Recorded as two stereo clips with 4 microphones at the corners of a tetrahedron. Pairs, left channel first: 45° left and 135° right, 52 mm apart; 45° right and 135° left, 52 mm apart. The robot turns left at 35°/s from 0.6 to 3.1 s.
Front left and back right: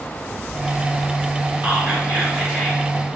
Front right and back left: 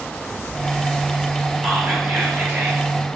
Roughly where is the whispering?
Behind.